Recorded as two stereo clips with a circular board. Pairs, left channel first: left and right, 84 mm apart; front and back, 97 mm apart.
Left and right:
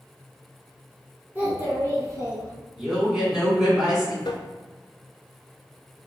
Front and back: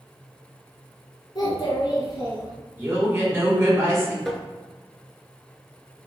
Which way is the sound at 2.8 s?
165° right.